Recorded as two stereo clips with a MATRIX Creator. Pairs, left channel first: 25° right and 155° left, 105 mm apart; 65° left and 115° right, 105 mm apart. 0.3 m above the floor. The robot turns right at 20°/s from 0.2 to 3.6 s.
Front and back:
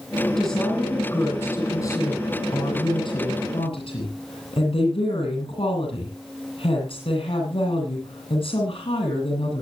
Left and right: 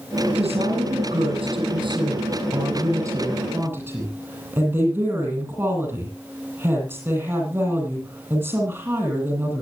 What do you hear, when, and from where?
0.4 s a woman speaking: 110° right, 9.5 m; by 9.6 s 45° right, 9.5 m